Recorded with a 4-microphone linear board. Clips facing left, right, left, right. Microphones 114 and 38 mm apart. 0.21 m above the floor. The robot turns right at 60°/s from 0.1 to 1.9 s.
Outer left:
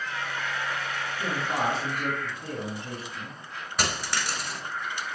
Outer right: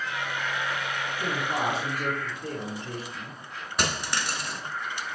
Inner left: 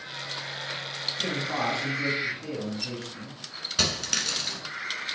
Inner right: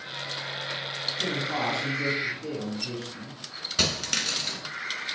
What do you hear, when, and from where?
1.2 s a man speaking: 25° left, 1.9 m; by 3.4 s 70° left, 1.9 m
3.8 s a dropped coin: centre (ahead or behind), 1.2 m